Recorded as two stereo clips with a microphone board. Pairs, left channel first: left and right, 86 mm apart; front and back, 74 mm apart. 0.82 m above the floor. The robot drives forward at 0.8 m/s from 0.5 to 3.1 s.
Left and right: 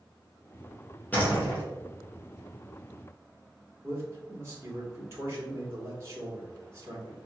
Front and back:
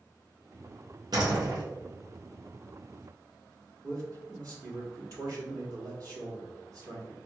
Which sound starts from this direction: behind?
A door slam, at 1.1 s.